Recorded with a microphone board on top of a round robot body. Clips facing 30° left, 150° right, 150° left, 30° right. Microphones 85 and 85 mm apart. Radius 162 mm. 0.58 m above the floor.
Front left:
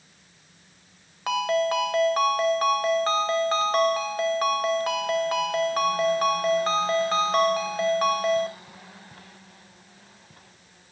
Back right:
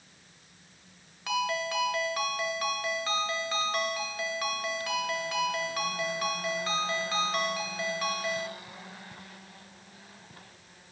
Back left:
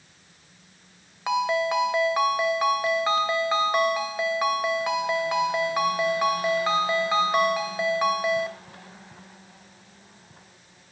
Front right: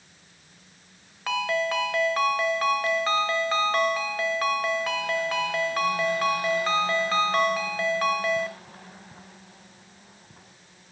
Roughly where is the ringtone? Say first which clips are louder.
Front left 7 dB, back left 3 dB; left.